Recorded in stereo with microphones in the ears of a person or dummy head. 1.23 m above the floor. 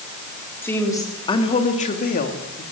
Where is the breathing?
No breathing in this recording.